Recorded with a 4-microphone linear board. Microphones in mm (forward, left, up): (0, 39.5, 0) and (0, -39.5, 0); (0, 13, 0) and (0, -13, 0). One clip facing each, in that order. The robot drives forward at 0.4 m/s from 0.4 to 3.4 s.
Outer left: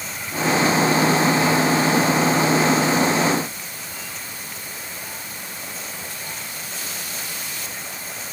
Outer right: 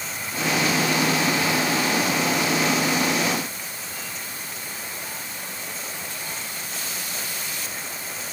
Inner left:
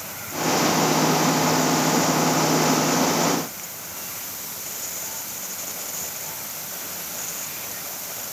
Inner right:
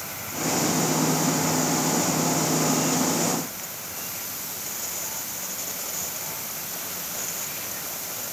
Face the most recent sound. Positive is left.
No sound to turn to.